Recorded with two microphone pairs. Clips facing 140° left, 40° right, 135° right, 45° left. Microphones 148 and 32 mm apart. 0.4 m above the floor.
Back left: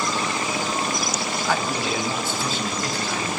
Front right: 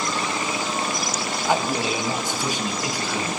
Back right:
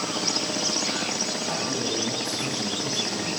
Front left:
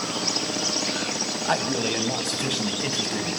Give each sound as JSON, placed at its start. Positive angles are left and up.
{"t": 1.4, "sound": "a man speaking", "azimuth_deg": 30, "distance_m": 3.0}